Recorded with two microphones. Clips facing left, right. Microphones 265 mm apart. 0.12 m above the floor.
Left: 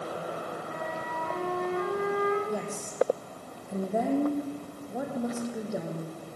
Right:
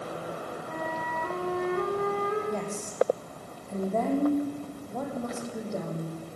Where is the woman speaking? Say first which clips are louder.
Even; 10° left (ahead or behind), 6 m.